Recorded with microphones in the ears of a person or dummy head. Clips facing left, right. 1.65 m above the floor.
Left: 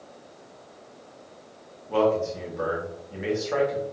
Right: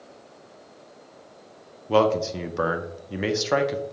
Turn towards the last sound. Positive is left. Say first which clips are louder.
# right 2 dB
turn(degrees=-70)  # may be behind; listen again after turning